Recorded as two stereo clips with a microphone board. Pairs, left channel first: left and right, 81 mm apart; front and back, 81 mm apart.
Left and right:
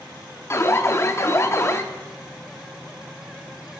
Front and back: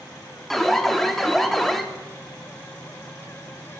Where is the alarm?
85° left, 0.6 m.